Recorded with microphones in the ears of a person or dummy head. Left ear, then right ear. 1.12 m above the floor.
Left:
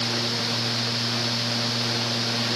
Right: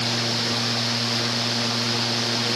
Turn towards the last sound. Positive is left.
No sound to turn to.